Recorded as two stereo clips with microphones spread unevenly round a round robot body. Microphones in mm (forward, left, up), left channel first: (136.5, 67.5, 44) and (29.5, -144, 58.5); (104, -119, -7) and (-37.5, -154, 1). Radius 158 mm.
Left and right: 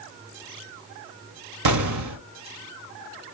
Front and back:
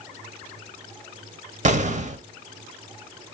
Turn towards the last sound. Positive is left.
turn(degrees=-130)